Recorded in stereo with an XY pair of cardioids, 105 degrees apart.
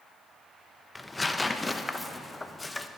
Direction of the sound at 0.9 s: 15° left.